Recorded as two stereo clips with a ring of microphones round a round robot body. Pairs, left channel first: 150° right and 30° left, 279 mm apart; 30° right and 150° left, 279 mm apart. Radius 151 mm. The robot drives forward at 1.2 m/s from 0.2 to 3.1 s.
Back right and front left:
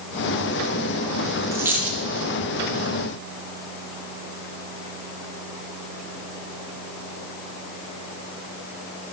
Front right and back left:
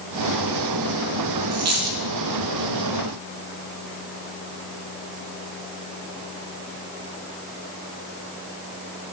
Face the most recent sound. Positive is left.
turn(degrees=130)